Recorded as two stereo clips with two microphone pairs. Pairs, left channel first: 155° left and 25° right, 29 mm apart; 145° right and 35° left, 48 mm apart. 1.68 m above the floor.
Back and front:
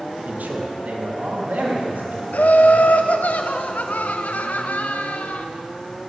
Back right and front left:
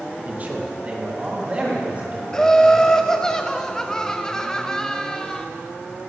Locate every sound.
0.2 s a man speaking: 20° right, 2.0 m; by 3.3 s 25° right, 5.5 m
2.3 s laughter: 145° left, 0.7 m